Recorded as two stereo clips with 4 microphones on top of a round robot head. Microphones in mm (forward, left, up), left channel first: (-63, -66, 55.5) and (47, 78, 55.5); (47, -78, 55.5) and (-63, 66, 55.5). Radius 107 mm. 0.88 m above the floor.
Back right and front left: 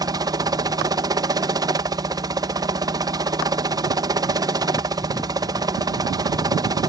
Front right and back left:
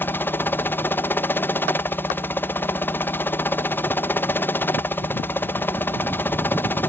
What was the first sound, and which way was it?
A helicopter, 10° left.